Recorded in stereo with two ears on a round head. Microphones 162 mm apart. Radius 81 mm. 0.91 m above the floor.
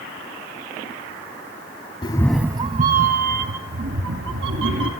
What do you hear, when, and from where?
2.0 s a cat meowing: 30° left (ahead or behind), 0.8 m; by 4.9 s 75° right (ahead or behind), 3.5 m